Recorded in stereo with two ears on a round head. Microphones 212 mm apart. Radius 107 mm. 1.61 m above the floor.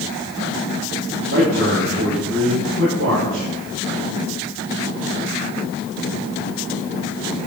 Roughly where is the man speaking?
Right.